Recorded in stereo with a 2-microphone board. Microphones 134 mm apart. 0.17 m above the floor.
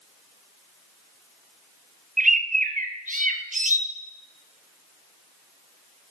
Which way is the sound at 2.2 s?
80° right.